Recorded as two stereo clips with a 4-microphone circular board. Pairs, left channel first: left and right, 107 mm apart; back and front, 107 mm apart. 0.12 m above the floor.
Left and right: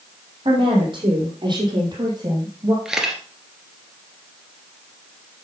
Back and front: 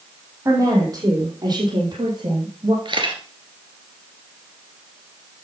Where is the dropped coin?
I don't hear a dropped coin.